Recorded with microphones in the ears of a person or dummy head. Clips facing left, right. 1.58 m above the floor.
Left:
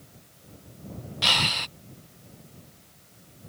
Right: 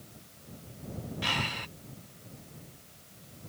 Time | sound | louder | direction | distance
1.2 | breathing | left 6 dB | 65° left (ahead or behind) | ?